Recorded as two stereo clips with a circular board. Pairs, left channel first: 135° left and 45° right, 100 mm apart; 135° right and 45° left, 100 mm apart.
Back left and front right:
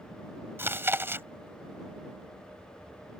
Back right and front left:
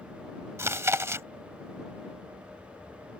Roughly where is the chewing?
Ahead.